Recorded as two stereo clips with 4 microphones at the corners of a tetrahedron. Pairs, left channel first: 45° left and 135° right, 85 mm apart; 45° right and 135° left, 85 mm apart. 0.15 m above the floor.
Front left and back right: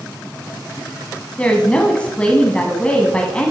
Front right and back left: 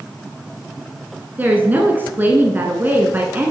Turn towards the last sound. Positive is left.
turn(degrees=105)